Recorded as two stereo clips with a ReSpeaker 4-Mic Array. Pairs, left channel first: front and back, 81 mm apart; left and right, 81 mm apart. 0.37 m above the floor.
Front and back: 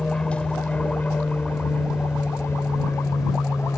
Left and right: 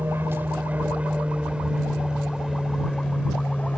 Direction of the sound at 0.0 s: 65° right.